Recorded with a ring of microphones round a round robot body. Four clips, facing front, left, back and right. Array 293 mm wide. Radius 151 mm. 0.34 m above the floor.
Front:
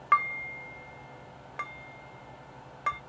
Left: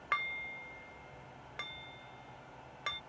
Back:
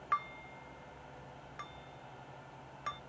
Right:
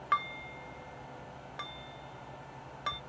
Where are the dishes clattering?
15° right.